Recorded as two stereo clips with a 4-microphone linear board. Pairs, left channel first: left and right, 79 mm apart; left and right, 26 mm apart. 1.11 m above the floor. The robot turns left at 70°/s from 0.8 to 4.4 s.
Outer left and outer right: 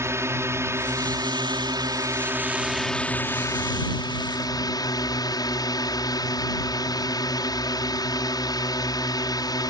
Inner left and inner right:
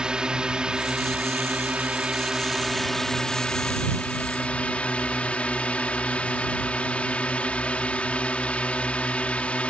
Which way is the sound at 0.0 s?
40° right.